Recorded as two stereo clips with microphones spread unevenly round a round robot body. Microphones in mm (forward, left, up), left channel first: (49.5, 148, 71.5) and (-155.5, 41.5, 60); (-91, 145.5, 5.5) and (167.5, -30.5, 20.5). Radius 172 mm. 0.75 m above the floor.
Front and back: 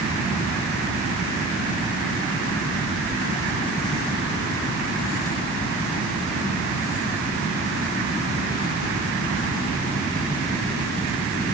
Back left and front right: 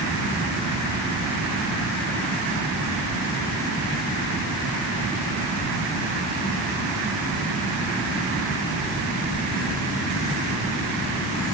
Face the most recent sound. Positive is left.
No sound to turn to.